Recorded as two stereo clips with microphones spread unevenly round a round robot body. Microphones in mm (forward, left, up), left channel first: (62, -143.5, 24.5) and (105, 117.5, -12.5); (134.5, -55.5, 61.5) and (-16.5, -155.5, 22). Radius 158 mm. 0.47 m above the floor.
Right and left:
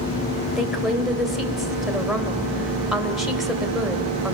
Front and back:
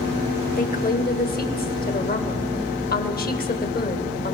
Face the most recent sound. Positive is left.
turn(degrees=-5)